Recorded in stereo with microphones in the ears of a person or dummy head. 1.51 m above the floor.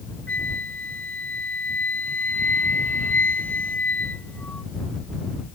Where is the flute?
5° left (ahead or behind).